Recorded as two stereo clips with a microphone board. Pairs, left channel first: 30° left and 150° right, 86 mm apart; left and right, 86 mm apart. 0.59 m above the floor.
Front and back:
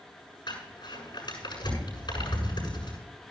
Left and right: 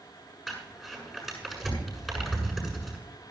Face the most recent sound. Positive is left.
turn(degrees=0)